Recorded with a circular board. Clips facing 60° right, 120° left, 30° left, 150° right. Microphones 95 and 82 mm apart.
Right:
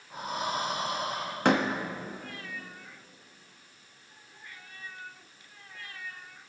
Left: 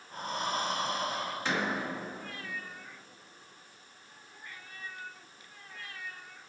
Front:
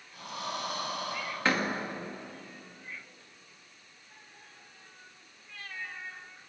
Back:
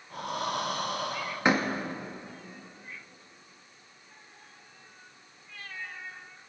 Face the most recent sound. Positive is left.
turn(degrees=-80)